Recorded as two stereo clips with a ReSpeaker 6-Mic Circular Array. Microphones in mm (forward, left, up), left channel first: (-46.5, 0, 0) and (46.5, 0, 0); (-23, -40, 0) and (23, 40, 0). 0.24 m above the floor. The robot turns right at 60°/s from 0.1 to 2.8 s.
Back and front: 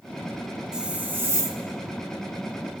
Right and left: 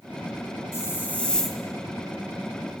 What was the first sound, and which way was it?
A hiss, 80° right.